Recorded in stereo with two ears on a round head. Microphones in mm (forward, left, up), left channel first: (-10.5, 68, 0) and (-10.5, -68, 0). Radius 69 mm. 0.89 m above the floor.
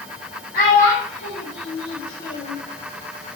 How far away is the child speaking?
About 1.0 m.